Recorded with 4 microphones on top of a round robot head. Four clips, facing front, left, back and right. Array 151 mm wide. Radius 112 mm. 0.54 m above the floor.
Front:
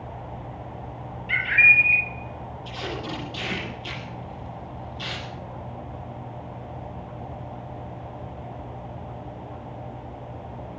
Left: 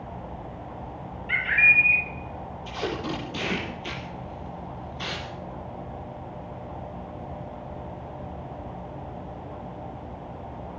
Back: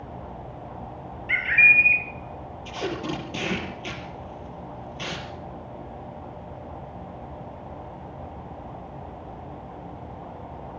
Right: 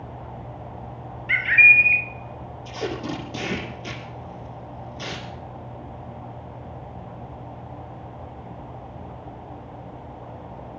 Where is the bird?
90° right, 4.5 m.